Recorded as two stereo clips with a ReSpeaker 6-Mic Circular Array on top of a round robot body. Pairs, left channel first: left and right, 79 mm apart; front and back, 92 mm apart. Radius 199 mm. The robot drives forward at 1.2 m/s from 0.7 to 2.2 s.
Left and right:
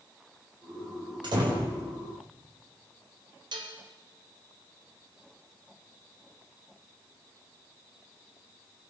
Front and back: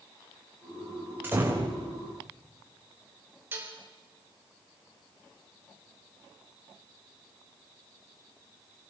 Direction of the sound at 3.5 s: 110° right.